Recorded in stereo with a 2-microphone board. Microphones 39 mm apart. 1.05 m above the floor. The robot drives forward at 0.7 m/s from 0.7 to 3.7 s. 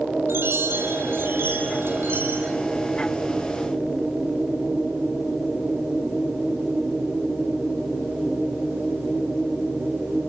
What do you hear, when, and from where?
0.3 s a chime: 85° right, 3.5 m; by 2.5 s 65° right (ahead or behind), 4 m